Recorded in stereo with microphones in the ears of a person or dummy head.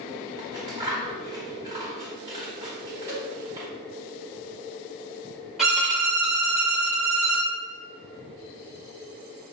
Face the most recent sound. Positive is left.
turn(degrees=-5)  # may be behind; listen again after turning